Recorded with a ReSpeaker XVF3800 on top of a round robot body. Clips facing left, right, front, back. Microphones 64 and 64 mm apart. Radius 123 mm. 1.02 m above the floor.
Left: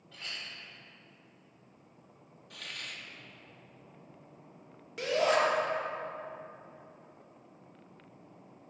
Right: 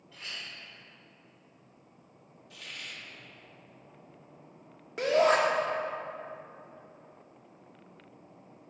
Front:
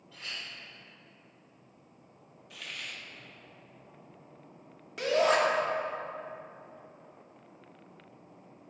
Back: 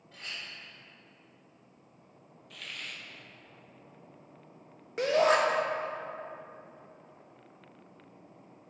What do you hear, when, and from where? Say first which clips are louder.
0.1 s a clink: right 1 dB, even; 125° left, 3 m
2.5 s a hiss: even, front 1 dB; 85° left, 1.1 m
5.0 s a shout: right 4 dB, back 1 dB; 135° right, 1.1 m